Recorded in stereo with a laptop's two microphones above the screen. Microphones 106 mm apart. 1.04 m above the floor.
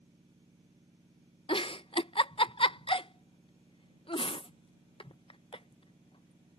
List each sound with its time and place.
0.0 s a machine running: 65° right (ahead or behind)
1.5 s a giggle: 55° left (ahead or behind)